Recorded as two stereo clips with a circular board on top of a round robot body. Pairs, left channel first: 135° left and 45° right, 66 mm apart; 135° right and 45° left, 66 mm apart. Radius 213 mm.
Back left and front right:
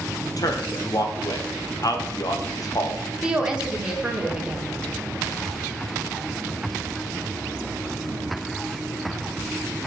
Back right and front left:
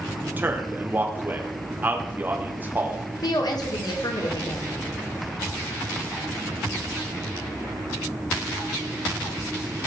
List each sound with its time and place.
0.3 s a man speaking: 105° left, 1.8 m
3.2 s a woman speaking: 125° right, 2.0 m